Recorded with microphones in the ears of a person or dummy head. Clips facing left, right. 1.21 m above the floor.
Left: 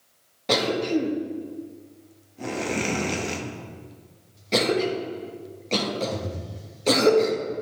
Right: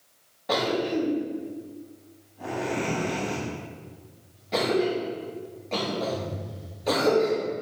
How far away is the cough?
About 1.2 m.